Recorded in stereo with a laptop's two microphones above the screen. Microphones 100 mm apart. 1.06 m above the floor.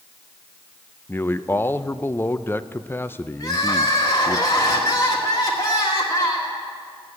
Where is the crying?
40° left (ahead or behind), 1.7 m.